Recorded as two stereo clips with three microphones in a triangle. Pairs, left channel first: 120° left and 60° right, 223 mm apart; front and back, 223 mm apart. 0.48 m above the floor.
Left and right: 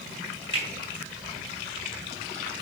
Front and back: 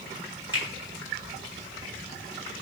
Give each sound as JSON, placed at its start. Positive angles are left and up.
{"t": 0.5, "sound": "a finger snap", "azimuth_deg": 160, "distance_m": 4.0}